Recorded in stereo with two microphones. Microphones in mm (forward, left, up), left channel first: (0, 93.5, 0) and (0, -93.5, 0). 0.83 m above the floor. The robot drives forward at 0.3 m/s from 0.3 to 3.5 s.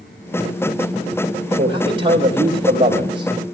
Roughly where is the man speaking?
Right.